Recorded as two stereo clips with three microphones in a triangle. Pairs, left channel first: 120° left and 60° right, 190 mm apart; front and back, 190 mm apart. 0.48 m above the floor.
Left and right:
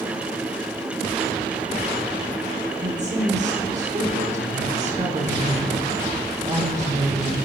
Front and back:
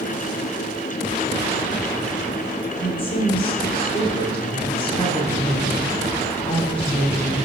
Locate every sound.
2.8 s a woman speaking: 45° right, 1.6 m